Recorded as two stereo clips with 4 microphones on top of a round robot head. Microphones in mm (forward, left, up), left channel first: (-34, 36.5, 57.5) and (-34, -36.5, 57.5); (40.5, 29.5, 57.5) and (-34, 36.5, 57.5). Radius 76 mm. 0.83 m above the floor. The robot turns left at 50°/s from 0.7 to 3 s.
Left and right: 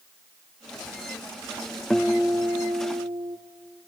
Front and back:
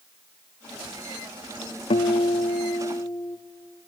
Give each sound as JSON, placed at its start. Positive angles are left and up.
{"t": 1.9, "sound": "a guitar", "azimuth_deg": 5, "distance_m": 0.9}